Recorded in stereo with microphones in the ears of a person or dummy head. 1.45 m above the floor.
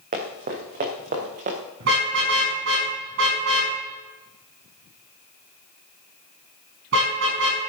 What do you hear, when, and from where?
0.1 s running footsteps: 50° right (ahead or behind), 4 m
1.8 s a car horn: 65° right (ahead or behind), 6 m